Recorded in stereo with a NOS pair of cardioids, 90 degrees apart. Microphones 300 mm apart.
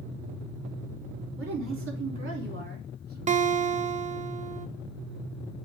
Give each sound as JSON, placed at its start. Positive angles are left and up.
{"t": 1.4, "sound": "a woman speaking", "azimuth_deg": -45, "distance_m": 4.0}
{"t": 3.3, "sound": "a guitar", "azimuth_deg": -25, "distance_m": 0.6}